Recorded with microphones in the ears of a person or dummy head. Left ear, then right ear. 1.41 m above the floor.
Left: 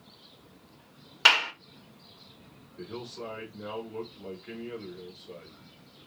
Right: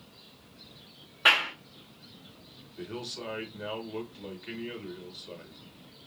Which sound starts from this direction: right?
A man speaking, at 2.8 s.